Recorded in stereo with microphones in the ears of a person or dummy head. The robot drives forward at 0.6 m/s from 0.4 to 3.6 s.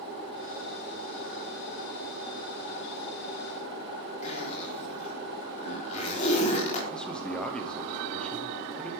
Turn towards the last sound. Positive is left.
turn(degrees=0)  # may be behind; listen again after turning